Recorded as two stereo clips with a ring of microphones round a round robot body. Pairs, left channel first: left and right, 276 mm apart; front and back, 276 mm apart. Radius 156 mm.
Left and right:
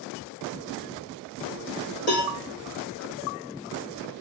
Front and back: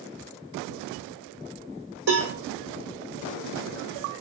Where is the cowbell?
150° left, 5.5 m.